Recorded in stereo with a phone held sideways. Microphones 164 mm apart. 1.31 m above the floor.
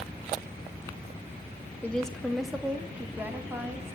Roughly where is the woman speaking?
Centre.